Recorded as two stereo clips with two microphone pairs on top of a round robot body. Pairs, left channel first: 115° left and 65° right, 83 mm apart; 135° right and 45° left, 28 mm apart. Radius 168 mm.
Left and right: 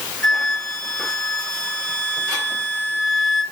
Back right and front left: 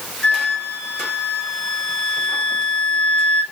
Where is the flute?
170° right, 1.9 m.